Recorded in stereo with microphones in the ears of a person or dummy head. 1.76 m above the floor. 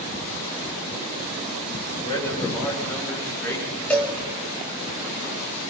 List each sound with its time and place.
2.0 s a man speaking: 25° left (ahead or behind), 6 m; by 3.8 s 15° left (ahead or behind), 8.5 m
3.9 s a cowbell: 10° left (ahead or behind), 2.5 m